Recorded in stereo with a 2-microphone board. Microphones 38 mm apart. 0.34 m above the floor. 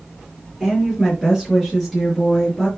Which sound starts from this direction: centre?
A woman speaking, at 0.6 s.